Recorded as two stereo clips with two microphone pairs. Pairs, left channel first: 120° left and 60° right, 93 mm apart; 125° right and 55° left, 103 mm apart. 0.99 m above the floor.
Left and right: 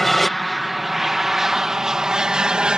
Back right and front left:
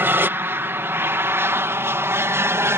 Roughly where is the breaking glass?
I don't hear breaking glass.